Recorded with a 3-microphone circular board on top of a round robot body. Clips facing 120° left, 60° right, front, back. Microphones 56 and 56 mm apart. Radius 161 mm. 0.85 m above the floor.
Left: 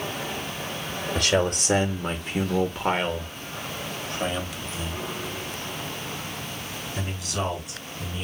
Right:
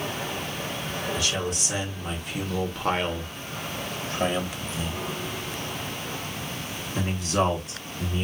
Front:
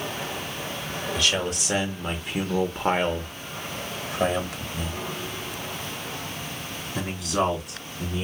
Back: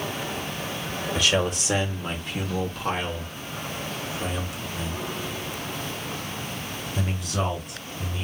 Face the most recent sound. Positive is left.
turn(degrees=-15)